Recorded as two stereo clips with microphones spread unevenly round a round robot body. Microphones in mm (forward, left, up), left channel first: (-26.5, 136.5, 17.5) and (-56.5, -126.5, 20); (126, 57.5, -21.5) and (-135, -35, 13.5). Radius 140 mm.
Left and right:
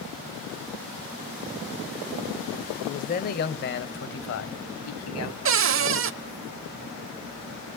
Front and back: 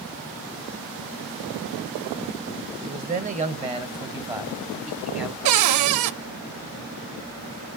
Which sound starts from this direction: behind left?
A man speaking, at 2.8 s.